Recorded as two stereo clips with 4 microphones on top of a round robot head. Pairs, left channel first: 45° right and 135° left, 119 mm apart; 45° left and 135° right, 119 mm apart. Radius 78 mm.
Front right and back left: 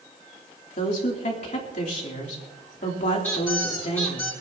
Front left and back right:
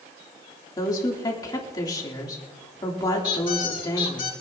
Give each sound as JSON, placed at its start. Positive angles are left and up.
{"t": 0.8, "sound": "a woman speaking", "azimuth_deg": -15, "distance_m": 3.0}
{"t": 3.2, "sound": "a squeak", "azimuth_deg": 30, "distance_m": 4.0}